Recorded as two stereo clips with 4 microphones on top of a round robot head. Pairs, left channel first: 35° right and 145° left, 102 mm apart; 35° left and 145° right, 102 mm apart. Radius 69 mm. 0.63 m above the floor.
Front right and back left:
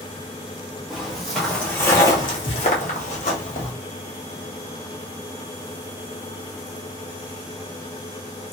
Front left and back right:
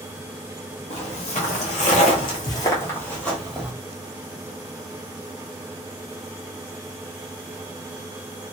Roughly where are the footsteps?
Ahead left.